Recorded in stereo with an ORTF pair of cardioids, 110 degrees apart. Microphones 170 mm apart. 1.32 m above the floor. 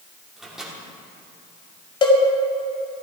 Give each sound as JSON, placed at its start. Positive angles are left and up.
{"t": 0.4, "sound": "a microwave", "azimuth_deg": 0, "distance_m": 3.0}
{"t": 2.0, "sound": "a cowbell", "azimuth_deg": 30, "distance_m": 2.0}